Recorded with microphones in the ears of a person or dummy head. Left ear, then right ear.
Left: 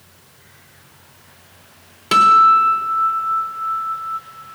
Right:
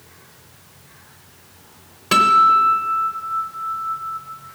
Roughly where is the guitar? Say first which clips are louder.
Left 2 dB; centre.